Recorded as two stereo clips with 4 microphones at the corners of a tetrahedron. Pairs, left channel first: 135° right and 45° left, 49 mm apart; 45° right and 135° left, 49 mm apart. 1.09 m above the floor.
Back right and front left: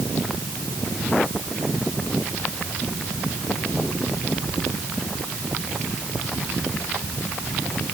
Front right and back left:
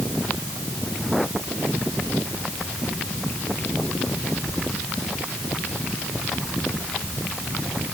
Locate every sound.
Only background noise.